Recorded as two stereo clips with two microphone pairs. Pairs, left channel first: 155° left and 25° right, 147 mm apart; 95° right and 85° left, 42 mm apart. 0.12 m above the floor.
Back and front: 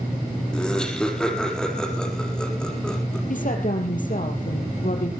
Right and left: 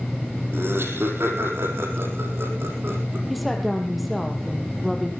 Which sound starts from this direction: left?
Laughter, at 0.5 s.